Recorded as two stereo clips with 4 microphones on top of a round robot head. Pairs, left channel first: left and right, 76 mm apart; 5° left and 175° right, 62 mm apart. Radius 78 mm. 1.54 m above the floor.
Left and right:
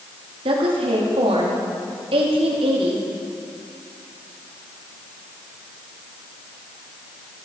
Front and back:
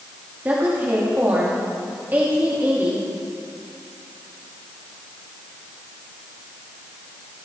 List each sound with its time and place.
0.5 s a woman speaking: 100° right, 2.5 m